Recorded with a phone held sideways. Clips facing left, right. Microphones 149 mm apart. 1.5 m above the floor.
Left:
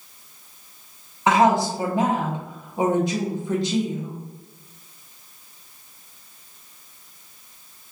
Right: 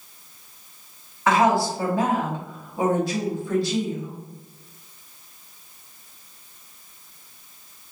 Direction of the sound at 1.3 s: 20° left (ahead or behind).